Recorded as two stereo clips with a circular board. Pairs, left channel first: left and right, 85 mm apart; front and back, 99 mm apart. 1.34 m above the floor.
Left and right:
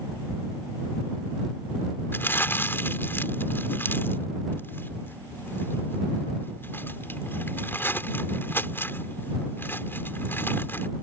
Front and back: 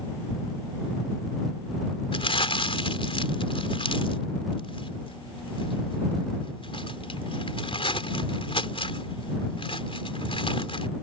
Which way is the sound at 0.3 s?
35° right.